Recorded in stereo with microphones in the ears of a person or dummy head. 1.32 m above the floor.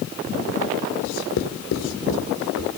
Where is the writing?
75° left (ahead or behind), 2.5 m.